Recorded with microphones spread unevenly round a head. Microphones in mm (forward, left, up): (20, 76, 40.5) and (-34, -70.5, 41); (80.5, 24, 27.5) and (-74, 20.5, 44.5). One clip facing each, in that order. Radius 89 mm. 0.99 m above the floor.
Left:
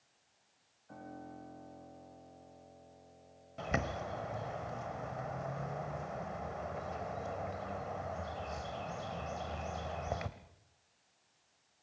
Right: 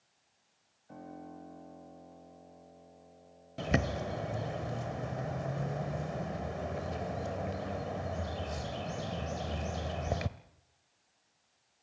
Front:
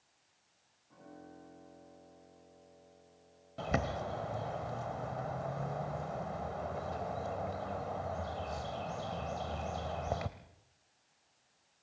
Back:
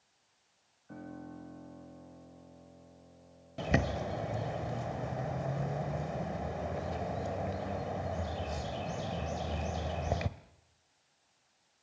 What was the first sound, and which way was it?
A piano, 175° left.